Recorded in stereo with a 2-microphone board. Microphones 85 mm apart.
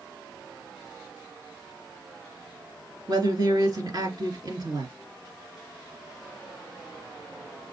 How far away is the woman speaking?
About 2.5 m.